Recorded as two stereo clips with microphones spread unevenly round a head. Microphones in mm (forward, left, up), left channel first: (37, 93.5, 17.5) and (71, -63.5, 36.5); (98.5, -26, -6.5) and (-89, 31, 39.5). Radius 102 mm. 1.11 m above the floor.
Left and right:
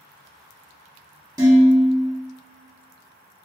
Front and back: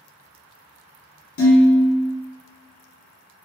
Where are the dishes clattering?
10° right, 1.8 m.